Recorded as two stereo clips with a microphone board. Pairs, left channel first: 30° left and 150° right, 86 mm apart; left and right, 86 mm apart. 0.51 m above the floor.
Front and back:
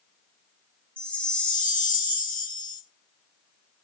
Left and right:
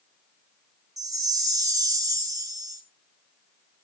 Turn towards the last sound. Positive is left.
turn(degrees=-45)